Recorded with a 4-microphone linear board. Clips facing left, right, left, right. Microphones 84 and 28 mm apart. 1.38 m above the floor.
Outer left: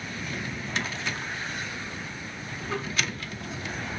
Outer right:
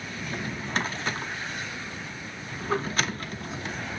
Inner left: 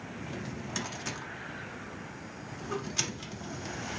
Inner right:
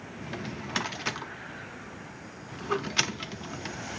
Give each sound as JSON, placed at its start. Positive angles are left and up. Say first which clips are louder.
{"t": 0.2, "sound": "a drawer", "louder": "outer right 3 dB, inner right 4 dB", "side_deg": -40, "distance_m": 0.5}